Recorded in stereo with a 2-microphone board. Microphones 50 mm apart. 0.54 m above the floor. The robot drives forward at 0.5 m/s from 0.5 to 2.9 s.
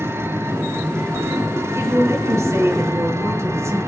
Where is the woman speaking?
75° right (ahead or behind), 7.5 m; by 3.8 s 70° right (ahead or behind), 7.5 m.